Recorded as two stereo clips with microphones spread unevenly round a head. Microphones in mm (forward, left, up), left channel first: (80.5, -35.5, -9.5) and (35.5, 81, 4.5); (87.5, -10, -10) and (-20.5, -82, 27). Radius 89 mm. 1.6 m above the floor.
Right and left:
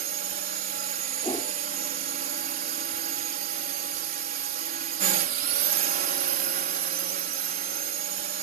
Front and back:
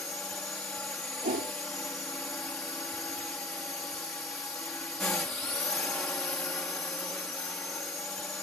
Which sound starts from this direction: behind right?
A whoosh, at 1.2 s.